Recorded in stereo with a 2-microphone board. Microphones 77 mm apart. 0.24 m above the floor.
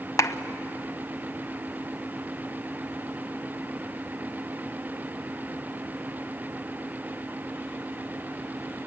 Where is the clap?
40° left (ahead or behind), 1.0 m.